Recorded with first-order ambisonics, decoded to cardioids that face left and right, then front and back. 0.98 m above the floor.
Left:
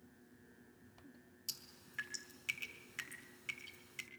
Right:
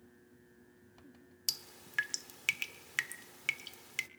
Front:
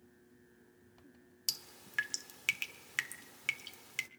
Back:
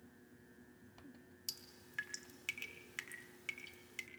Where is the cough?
No cough in this recording.